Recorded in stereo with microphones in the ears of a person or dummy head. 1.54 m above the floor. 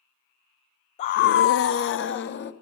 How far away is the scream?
About 0.6 m.